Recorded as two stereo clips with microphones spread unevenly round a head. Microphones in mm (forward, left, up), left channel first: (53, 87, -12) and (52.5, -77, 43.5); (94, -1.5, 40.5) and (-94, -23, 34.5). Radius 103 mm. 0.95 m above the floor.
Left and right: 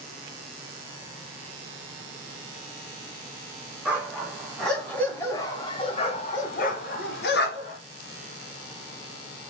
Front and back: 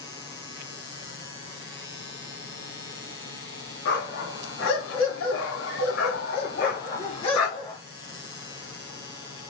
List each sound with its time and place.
3.9 s a dog barking: 20° right, 1.8 m; by 7.8 s 75° left, 1.5 m